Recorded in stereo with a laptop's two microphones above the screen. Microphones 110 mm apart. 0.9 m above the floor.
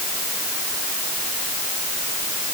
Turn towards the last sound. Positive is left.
No sound to turn to.